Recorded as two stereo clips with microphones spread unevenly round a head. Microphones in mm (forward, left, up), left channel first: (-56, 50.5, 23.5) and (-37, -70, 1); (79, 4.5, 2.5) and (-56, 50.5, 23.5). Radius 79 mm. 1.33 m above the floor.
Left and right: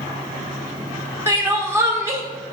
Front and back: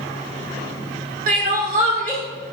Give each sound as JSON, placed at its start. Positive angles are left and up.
{"t": 1.3, "sound": "crying", "azimuth_deg": -150, "distance_m": 1.7}